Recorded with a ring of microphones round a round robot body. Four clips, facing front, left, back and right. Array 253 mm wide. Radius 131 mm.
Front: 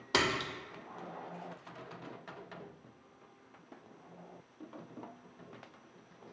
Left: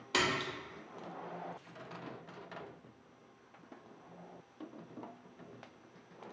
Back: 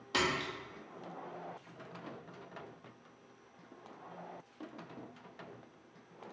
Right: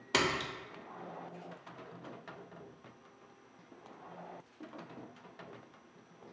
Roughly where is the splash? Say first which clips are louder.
Right 1 dB, front 2 dB; ahead right.